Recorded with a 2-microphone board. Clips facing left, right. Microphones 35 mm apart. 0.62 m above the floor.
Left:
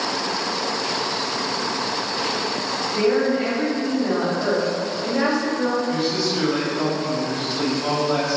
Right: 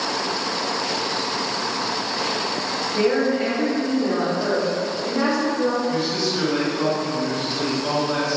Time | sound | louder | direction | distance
3.0 | a woman speaking | even | 20° right (ahead or behind) | 1.0 m
5.9 | a man speaking | even | 10° left (ahead or behind) | 1.9 m